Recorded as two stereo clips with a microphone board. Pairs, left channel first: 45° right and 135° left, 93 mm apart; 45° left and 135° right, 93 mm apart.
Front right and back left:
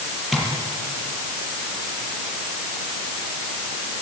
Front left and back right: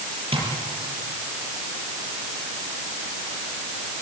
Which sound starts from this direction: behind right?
Tapping, at 0.3 s.